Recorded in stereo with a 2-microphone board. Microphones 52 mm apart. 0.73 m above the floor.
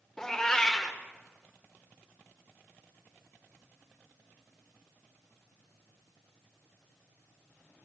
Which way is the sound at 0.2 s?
10° left (ahead or behind).